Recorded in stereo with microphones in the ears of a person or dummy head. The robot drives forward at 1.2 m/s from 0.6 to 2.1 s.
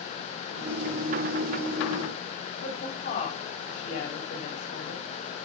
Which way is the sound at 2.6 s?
55° left (ahead or behind).